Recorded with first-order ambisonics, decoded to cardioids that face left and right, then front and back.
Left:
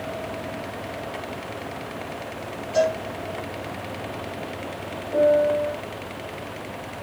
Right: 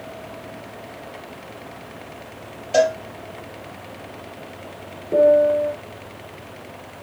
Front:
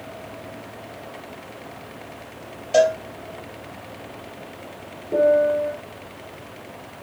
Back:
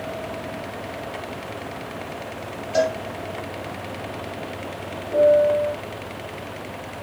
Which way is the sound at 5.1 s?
70° right.